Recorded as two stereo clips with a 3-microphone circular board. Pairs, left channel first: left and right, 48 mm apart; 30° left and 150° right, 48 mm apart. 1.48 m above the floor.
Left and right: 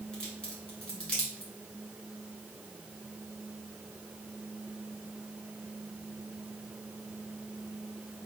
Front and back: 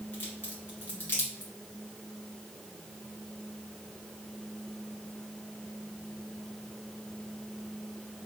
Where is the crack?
25° left, 1.7 m.